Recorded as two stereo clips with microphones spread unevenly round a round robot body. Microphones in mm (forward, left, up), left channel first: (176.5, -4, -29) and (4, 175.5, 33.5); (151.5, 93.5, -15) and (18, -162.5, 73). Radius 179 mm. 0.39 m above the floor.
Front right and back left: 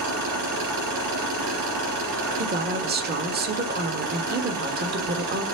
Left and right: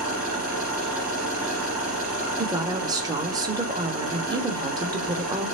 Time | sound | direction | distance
0.0 | an engine running | 155° left | 4 m
2.4 | a woman speaking | 140° left | 1.2 m